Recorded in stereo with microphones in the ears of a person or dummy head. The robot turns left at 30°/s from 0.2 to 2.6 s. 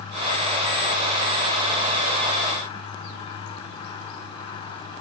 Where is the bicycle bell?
I don't hear a bicycle bell.